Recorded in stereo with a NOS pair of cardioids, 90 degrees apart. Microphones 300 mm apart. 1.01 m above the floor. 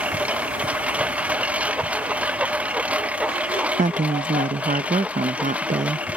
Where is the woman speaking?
25° right.